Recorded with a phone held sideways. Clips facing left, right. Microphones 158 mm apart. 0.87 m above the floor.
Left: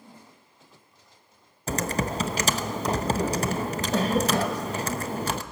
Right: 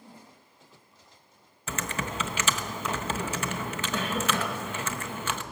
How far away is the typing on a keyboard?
About 0.8 m.